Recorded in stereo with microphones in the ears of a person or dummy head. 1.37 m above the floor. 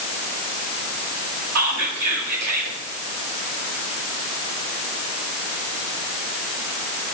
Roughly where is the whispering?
Right.